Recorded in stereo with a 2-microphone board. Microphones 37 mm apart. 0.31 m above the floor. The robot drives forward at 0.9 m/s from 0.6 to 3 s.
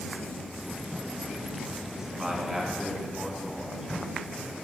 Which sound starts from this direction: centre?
A man speaking, at 2.1 s.